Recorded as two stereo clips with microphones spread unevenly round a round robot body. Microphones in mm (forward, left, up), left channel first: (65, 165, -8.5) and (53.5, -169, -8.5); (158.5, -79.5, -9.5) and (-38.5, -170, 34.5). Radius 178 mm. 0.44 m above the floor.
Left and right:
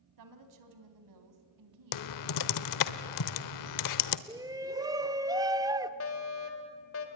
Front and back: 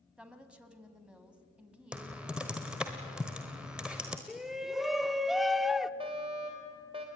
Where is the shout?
35° right, 0.7 m.